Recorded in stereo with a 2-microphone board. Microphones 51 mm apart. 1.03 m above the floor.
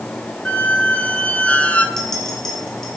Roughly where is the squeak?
Left.